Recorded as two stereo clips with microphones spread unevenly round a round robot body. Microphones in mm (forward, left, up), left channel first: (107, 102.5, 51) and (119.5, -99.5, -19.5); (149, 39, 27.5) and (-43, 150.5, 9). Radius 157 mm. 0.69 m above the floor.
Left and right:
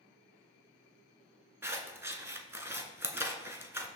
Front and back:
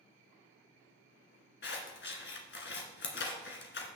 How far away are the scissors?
About 1.8 m.